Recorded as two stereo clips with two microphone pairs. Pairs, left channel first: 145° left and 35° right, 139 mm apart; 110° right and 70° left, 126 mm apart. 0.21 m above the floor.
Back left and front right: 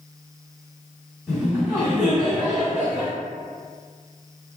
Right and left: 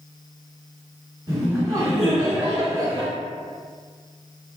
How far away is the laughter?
About 1.6 m.